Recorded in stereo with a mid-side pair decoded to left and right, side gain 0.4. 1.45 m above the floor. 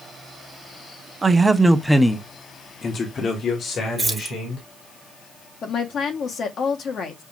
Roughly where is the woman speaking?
Ahead left.